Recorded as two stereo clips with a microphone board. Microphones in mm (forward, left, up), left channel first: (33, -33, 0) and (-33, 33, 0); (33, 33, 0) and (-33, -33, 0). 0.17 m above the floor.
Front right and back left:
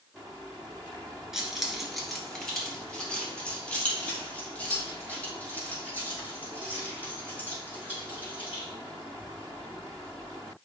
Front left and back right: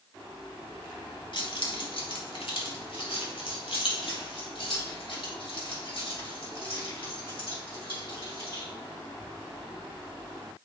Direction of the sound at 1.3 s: 50° left.